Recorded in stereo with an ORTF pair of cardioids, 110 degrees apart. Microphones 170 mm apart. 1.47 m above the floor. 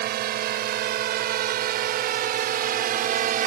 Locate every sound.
0.0 s a drone: 70° right; by 3.5 s 55° right